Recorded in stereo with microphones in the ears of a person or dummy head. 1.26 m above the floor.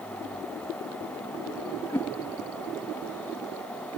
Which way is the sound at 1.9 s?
10° left (ahead or behind).